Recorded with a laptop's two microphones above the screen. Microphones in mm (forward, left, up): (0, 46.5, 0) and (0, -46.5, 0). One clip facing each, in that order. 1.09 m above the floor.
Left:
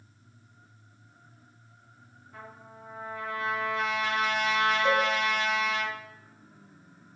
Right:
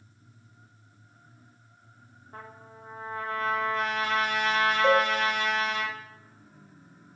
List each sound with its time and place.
2.3 s a trumpet: 45° right (ahead or behind), 0.6 m
4.8 s a cowbell: 55° right (ahead or behind), 0.7 m